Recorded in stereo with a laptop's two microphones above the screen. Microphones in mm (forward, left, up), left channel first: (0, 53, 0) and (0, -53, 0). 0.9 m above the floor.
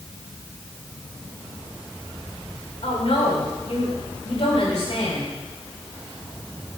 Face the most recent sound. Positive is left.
turn(degrees=70)  # may be behind; listen again after turning